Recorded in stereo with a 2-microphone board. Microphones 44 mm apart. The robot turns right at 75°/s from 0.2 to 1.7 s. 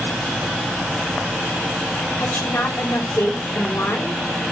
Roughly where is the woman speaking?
Left.